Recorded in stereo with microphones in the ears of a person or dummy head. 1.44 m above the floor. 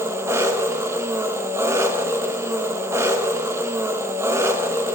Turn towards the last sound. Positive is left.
turn(degrees=-10)  # may be behind; listen again after turning